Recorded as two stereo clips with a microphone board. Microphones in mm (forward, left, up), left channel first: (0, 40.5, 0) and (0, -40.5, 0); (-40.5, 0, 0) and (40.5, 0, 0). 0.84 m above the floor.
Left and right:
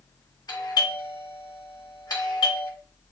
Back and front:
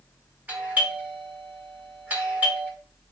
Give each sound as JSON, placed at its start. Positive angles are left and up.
{"t": 0.5, "sound": "a doorbell", "azimuth_deg": 70, "distance_m": 1.6}